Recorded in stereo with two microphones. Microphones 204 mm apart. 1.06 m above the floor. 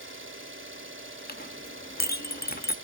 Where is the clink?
50° left (ahead or behind), 1.0 m.